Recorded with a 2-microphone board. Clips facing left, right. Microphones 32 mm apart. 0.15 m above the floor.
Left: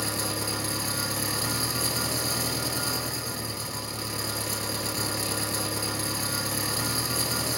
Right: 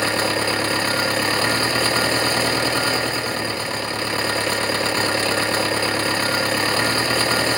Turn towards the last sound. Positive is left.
turn(degrees=-65)  # may be behind; listen again after turning